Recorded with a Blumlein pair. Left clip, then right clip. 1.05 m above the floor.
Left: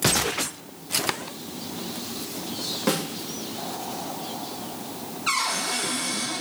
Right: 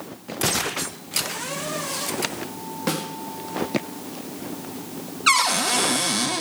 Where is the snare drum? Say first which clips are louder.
Left 1 dB; straight ahead, 1.3 m.